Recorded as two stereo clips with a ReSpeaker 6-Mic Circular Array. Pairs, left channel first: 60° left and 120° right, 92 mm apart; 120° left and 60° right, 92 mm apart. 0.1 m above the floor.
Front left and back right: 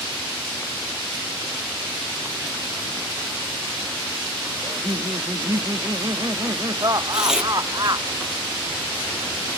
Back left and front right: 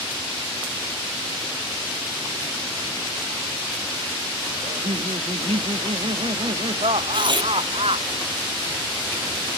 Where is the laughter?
65° right; by 8.1 s 75° right.